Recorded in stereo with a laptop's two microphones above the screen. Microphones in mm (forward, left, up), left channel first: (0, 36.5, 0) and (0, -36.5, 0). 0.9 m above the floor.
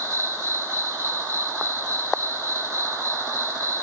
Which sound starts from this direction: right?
An insect, at 0.0 s.